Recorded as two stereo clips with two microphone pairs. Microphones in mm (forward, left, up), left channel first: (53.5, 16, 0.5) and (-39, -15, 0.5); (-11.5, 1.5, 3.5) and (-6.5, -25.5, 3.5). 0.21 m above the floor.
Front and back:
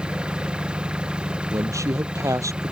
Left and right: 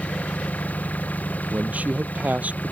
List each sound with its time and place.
0.0 s an engine running: 120° left
1.5 s a man speaking: 105° right